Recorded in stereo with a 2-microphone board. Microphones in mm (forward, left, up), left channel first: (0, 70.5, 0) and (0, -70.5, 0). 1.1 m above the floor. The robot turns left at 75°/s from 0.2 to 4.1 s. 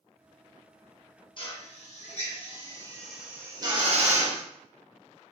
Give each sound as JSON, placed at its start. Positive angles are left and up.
{"t": 1.4, "sound": "a drill", "side_deg": 40, "distance_m": 0.7}